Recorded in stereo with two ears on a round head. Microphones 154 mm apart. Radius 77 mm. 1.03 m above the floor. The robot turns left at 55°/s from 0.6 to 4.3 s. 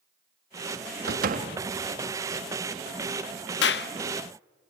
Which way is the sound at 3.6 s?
75° left (ahead or behind).